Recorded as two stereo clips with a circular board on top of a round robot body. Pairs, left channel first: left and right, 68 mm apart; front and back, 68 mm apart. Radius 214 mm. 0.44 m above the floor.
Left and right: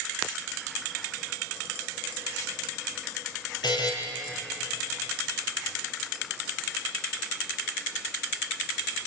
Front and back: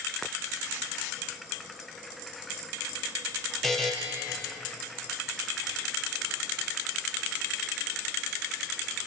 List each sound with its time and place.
3.6 s a buzzer: 90° left, 4.5 m